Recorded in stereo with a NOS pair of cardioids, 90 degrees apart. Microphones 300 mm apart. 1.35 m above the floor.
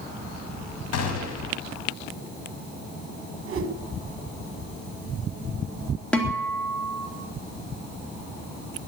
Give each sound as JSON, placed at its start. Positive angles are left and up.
{"t": 0.9, "sound": "a gunshot", "azimuth_deg": 65, "distance_m": 3.0}
{"t": 3.5, "sound": "a whoosh", "azimuth_deg": -50, "distance_m": 1.7}
{"t": 6.1, "sound": "a guitar", "azimuth_deg": 5, "distance_m": 3.0}